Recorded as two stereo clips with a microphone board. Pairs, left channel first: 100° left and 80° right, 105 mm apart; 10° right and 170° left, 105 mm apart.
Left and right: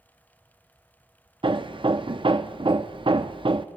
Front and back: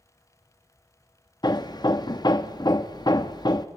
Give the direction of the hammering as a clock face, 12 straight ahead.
2 o'clock.